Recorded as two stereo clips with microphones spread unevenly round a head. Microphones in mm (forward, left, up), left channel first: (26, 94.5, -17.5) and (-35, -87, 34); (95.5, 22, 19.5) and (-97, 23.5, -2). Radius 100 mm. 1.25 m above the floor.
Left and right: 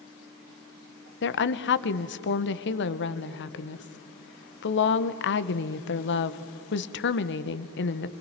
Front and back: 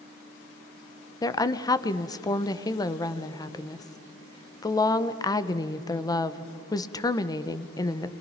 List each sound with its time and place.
1.2 s a woman speaking: 75° left, 1.0 m